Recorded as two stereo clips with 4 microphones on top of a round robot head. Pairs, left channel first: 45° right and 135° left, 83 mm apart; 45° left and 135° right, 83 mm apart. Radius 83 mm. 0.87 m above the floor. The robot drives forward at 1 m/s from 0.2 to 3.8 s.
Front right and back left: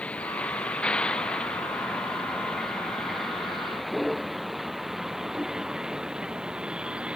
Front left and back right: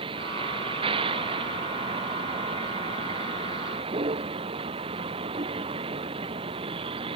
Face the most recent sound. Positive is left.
turn(degrees=-145)